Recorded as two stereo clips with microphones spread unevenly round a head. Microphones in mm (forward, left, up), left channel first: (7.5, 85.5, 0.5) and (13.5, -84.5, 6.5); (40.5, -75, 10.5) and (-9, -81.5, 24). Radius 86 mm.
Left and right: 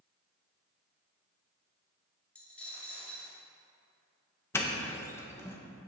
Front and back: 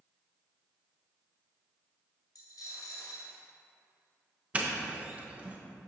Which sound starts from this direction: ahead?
A dropped coin, at 2.4 s.